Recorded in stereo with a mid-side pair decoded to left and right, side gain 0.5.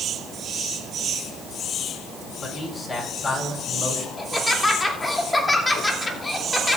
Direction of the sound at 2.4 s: 35° left.